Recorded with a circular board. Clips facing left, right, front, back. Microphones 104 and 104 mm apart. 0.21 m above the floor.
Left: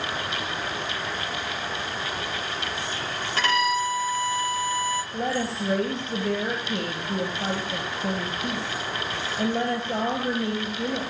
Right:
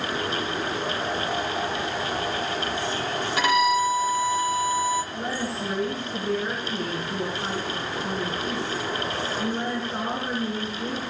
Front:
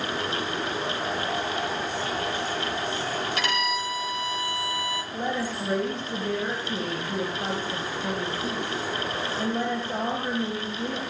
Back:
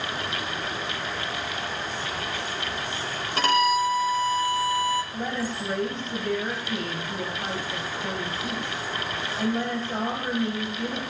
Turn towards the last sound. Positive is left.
turn(degrees=75)